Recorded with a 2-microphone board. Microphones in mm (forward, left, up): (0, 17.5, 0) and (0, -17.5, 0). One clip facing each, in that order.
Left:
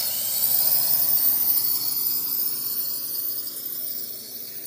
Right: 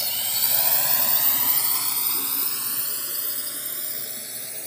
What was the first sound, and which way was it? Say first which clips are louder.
A drone: right 4 dB; 35° right (ahead or behind).